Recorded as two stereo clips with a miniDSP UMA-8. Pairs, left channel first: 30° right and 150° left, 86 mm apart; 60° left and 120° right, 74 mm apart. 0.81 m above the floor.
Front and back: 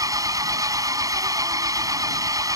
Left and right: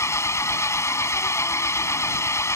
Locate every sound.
0.0 s an engine running: 105° left